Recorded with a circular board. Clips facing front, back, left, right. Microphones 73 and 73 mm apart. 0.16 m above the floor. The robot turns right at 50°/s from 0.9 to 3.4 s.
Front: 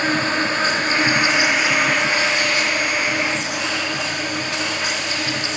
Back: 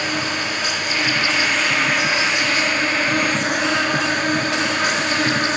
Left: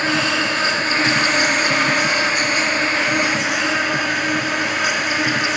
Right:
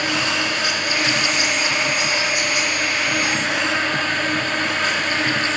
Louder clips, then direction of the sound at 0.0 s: Front 4 dB, left 3 dB; 40° left.